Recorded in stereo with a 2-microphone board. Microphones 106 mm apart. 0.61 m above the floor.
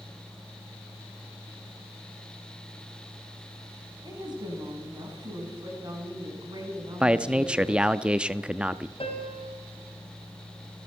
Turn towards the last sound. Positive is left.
turn(degrees=60)  # may be behind; listen again after turning